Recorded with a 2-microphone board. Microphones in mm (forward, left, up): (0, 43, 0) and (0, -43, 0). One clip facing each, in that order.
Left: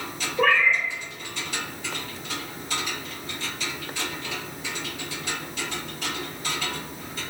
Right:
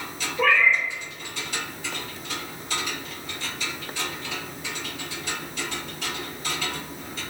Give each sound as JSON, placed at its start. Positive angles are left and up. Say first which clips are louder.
{"t": 0.4, "sound": "a cat meowing", "louder": "even", "side_deg": 55, "distance_m": 1.1}